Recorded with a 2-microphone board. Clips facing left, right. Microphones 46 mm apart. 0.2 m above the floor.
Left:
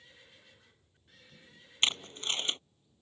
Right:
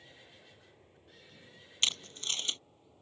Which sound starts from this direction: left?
Tape being pulled, at 1.8 s.